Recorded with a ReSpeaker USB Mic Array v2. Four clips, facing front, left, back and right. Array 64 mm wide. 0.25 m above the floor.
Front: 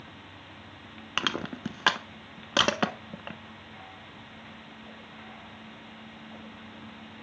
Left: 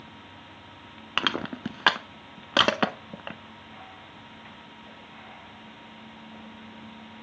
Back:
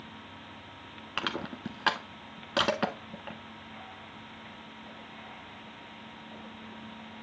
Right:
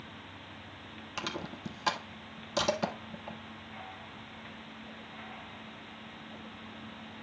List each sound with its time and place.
1.2 s crushing: 75° left, 0.7 m